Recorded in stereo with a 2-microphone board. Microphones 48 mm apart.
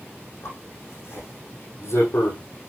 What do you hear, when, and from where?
0.4 s a zipper: 75° left (ahead or behind), 5.5 m